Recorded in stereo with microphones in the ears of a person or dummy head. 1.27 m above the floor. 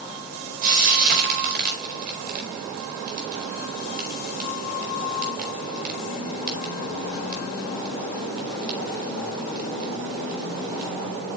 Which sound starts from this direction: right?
Frying, at 0.6 s.